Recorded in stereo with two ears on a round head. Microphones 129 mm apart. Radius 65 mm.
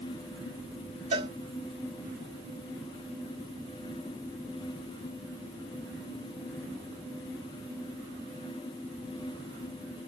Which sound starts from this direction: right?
A cowbell, at 1.1 s.